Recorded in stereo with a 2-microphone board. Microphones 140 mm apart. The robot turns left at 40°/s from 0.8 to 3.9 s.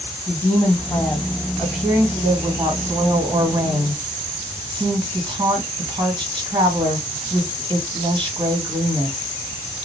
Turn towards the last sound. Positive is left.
turn(degrees=-85)